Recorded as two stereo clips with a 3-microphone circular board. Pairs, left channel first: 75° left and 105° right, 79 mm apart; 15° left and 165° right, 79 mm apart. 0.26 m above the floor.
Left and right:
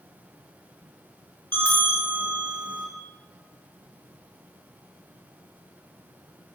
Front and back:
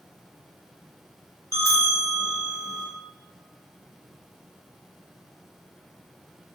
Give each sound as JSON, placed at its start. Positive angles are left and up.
{"t": 1.5, "sound": "a bell", "azimuth_deg": 25, "distance_m": 1.9}